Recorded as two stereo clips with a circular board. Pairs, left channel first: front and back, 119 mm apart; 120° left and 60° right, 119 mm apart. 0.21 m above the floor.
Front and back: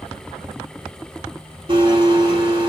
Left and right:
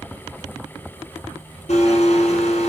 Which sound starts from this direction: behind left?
A blender, at 1.7 s.